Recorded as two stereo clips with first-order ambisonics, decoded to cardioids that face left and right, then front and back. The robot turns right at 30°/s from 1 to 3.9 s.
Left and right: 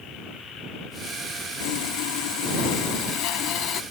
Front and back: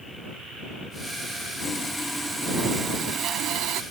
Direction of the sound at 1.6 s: 75° left.